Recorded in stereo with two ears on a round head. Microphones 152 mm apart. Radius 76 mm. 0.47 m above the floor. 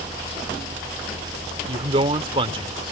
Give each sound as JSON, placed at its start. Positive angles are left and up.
{"t": 1.6, "sound": "a man speaking", "side_deg": -35}